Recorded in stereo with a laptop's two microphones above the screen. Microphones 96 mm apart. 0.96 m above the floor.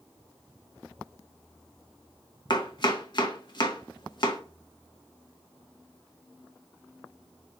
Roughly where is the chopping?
Left.